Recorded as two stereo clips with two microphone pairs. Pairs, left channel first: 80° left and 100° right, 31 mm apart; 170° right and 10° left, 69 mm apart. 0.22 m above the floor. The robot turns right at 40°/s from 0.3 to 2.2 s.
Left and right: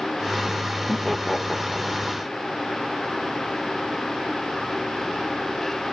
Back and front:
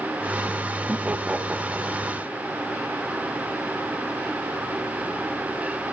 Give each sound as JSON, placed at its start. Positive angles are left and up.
{"t": 0.9, "sound": "laughter", "azimuth_deg": 5, "distance_m": 1.2}